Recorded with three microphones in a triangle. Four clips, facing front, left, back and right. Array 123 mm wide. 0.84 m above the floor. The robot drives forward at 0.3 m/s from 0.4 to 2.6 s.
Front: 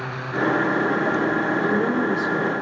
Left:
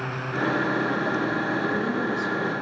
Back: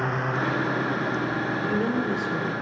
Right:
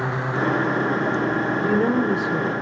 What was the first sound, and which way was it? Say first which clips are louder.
A woman speaking: right 6 dB, front 4 dB; 70° right.